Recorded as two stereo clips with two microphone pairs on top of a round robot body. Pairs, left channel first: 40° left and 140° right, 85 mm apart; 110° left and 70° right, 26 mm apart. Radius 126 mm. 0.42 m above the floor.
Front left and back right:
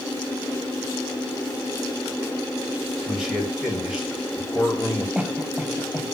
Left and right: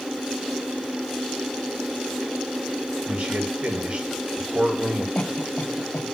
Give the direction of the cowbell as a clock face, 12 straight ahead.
I don't hear a cowbell.